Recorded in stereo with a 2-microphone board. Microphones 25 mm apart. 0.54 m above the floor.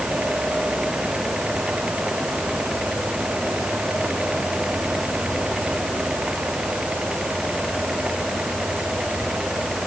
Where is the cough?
I don't hear a cough.